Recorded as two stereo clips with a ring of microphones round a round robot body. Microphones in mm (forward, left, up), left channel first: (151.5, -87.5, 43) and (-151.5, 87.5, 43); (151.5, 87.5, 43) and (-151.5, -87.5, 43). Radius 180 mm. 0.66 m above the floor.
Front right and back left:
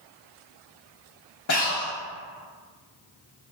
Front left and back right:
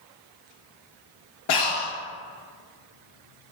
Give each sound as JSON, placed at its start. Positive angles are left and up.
{"t": 1.5, "sound": "breathing", "azimuth_deg": 15, "distance_m": 0.7}